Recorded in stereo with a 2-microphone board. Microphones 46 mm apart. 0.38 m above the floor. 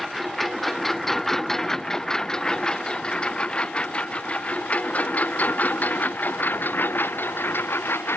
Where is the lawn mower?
Centre (ahead or behind); by 8.2 s 55° left (ahead or behind).